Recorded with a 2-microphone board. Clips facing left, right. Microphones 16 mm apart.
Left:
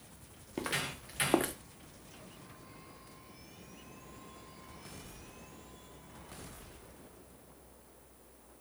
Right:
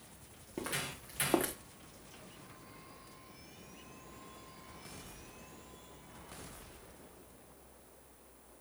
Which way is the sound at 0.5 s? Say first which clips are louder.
Left 3 dB; 40° left (ahead or behind).